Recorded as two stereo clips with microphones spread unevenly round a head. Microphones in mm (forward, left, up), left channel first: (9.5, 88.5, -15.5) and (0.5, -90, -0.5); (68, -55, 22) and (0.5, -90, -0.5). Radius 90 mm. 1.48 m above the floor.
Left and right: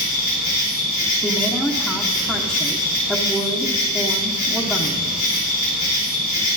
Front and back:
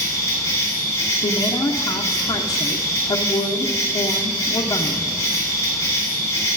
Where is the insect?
130° left, 4 m.